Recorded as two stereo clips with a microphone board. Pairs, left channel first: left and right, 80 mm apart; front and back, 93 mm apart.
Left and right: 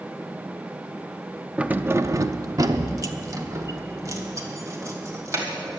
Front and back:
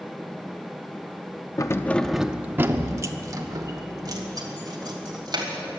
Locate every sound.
1.6 s keys jangling: 20° right, 0.5 m; by 5.5 s 140° right, 2.5 m